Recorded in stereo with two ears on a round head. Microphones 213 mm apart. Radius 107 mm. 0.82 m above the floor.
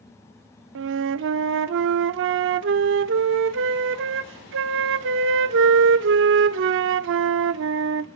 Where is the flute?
55° right (ahead or behind), 0.5 m.